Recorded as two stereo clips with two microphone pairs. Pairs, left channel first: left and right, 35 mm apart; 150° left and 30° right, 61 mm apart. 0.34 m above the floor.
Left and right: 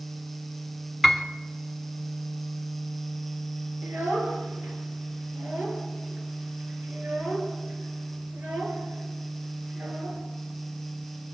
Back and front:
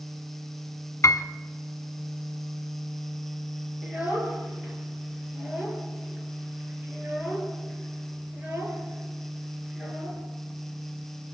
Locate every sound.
1.0 s a piano: 175° right, 1.2 m
3.8 s a child speaking: 95° right, 5.5 m